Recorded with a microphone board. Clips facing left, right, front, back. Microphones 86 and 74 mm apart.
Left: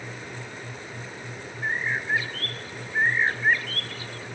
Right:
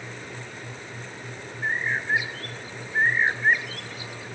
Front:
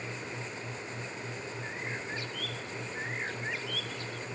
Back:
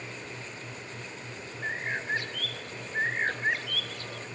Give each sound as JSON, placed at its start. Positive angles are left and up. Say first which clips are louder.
{"t": 1.6, "sound": "a bird", "louder": "right 1 dB, back 9 dB", "azimuth_deg": -165}